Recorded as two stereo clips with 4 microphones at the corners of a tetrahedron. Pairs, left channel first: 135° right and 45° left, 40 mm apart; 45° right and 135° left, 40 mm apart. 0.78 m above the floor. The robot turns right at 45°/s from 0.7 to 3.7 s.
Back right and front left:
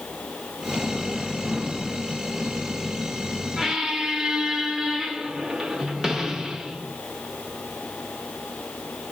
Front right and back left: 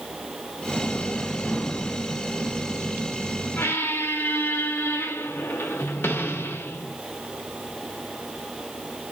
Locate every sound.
3.6 s a squeak: 40° right, 0.8 m; by 7.0 s 35° right, 0.8 m